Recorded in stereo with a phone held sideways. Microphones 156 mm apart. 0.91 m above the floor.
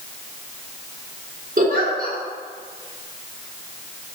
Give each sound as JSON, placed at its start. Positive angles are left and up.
{"t": 1.6, "sound": "a giggle", "side_deg": -60, "distance_m": 0.9}